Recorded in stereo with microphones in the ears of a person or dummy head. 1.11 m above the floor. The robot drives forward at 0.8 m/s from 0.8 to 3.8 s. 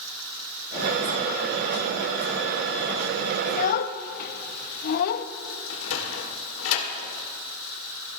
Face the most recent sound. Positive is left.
turn(degrees=75)  # may be behind; listen again after turning